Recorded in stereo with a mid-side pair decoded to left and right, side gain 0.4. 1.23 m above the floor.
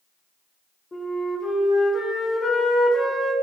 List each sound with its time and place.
0.9 s a flute: 30° left, 0.7 m